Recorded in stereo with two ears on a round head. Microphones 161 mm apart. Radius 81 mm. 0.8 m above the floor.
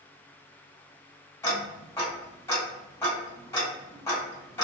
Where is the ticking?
15° left (ahead or behind), 1.6 m.